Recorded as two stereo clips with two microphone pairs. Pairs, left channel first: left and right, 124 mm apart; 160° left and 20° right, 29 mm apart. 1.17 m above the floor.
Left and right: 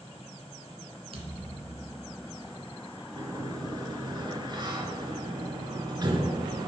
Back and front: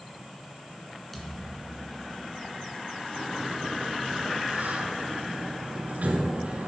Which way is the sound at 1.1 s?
120° right.